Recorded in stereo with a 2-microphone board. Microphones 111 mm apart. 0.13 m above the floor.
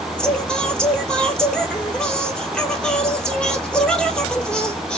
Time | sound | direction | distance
0.2 | singing | 5° left (ahead or behind) | 1.1 m